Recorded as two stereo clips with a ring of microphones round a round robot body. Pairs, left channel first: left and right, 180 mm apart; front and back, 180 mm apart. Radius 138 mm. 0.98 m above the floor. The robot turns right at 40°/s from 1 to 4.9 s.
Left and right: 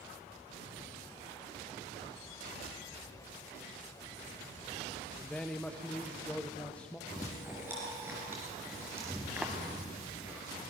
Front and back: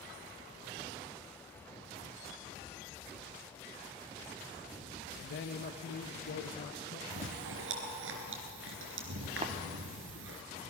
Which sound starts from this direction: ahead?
A man speaking, at 5.2 s.